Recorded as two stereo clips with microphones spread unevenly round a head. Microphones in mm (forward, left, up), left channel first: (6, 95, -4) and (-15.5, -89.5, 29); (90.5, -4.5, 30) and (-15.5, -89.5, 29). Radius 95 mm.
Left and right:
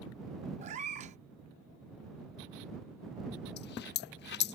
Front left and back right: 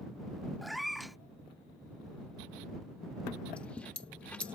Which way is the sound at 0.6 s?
50° right.